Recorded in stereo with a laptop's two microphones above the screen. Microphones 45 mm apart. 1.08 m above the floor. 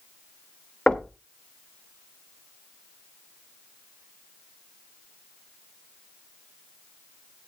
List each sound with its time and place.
0.9 s knocking: 20° left (ahead or behind), 1.0 m